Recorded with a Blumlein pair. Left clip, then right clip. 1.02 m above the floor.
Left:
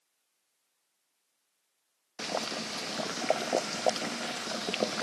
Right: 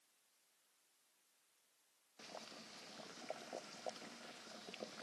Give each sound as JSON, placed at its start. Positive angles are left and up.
{"t": 2.2, "sound": "boiling", "azimuth_deg": 50}